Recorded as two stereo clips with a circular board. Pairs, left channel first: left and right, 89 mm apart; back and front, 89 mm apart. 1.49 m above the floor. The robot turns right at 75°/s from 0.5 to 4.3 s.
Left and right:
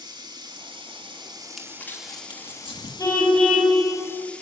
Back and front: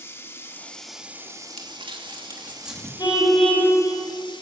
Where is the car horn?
135° left, 5.5 m; by 3.8 s 165° right, 5.5 m.